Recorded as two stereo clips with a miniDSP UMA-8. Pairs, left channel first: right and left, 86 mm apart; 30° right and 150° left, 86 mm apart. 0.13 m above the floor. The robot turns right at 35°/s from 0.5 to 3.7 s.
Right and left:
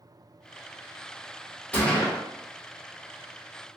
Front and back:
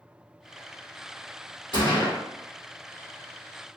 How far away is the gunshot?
About 1.1 m.